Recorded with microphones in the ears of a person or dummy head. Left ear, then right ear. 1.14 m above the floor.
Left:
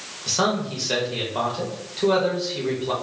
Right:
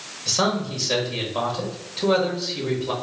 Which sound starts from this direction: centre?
A man speaking, at 0.3 s.